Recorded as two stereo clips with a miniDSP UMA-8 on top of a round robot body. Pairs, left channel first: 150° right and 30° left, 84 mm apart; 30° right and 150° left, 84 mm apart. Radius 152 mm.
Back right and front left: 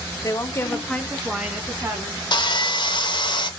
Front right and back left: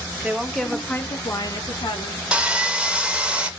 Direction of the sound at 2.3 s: 135° right.